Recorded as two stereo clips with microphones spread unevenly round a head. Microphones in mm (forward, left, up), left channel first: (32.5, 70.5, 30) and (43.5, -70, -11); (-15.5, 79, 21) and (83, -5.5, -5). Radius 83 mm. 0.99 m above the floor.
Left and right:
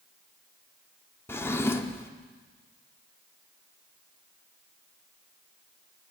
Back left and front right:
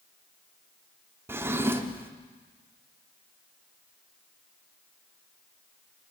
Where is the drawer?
35° left, 0.7 m.